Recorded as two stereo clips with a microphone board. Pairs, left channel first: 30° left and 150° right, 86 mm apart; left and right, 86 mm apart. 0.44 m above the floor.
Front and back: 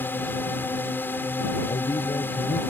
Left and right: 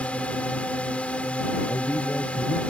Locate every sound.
0.0 s a drone: 40° left
1.7 s a man speaking: 25° left